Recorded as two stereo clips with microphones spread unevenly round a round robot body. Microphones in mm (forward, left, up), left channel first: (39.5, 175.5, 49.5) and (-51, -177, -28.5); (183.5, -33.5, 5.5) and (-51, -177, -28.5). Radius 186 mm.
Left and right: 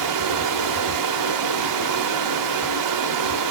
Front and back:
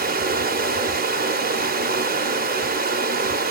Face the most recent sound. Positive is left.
turn(degrees=-100)